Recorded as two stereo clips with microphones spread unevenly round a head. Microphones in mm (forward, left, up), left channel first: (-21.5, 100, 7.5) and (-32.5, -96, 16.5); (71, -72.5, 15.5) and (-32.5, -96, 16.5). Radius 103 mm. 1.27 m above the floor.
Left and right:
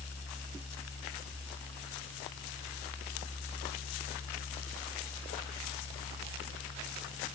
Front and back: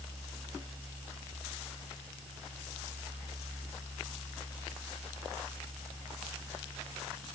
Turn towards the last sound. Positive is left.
No sound to turn to.